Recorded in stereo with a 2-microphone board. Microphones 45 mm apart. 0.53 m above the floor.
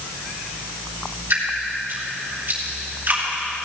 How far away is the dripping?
About 3.5 m.